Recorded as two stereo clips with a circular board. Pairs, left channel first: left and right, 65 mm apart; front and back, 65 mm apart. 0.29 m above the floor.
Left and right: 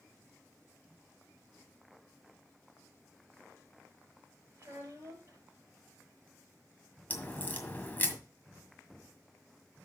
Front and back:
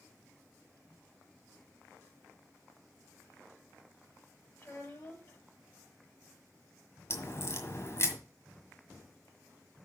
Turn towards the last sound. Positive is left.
turn(degrees=30)